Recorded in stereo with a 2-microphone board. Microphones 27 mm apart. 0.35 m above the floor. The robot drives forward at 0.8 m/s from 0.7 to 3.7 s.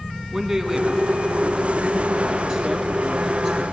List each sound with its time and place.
0.3 s a man speaking: 15° right (ahead or behind), 2.5 m; by 3.6 s 10° right (ahead or behind), 5 m